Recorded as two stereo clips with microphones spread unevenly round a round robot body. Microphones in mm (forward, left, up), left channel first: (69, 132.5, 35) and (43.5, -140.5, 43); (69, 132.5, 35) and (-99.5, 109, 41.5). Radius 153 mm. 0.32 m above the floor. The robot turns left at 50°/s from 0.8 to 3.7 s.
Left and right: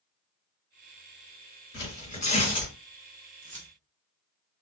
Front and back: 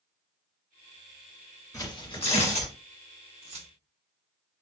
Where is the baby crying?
I don't hear a baby crying.